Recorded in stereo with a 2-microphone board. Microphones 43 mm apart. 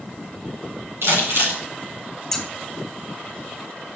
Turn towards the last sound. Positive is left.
turn(degrees=10)  # may be behind; listen again after turning